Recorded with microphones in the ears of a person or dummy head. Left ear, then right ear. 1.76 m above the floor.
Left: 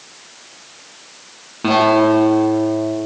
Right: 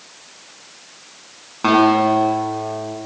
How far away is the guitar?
About 6 m.